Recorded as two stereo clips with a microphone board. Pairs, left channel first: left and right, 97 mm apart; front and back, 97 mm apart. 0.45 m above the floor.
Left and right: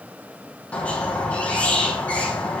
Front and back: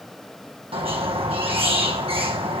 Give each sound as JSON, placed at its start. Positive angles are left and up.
{"t": 0.7, "sound": "a squeak", "azimuth_deg": 165, "distance_m": 3.0}